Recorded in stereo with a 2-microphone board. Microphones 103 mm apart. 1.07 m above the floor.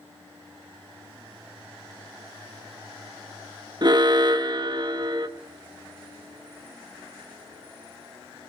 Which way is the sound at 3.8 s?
45° right (ahead or behind).